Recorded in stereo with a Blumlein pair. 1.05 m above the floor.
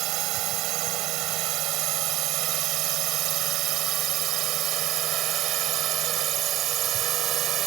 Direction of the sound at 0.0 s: 40° right.